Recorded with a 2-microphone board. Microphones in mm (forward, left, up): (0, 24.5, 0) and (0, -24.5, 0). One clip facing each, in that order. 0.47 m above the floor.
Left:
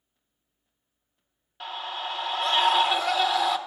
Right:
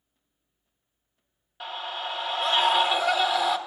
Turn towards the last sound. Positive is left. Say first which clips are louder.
# even
turn(degrees=-5)  # may be behind; listen again after turning